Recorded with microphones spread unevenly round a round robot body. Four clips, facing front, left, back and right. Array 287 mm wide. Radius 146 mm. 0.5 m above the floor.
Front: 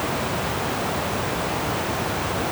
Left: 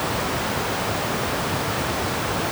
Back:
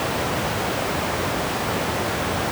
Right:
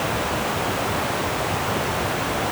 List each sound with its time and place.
Only background noise.